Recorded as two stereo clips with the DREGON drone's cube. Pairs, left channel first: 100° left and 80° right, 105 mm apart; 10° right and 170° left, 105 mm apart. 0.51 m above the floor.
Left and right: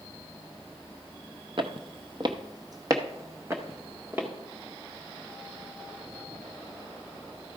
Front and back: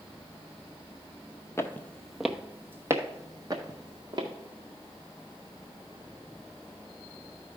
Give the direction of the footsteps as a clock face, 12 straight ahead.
2 o'clock.